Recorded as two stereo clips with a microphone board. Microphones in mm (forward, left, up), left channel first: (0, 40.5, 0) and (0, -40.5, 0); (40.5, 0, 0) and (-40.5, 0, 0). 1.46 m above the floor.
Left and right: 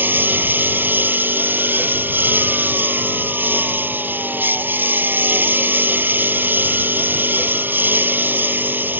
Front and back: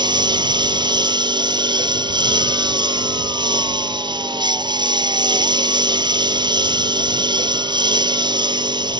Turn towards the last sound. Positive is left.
turn(degrees=-155)